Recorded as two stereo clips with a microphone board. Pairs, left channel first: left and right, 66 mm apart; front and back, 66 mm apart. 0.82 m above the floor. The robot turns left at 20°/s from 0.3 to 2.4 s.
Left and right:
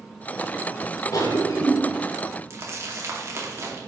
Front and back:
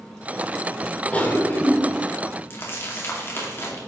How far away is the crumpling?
About 2.5 m.